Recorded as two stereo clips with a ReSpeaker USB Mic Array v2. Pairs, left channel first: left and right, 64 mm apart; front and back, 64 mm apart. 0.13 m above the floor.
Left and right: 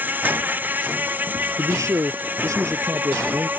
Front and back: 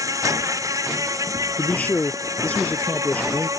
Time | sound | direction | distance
0.0 | an insect | 150° right | ?
1.6 | a man speaking | 60° right | ?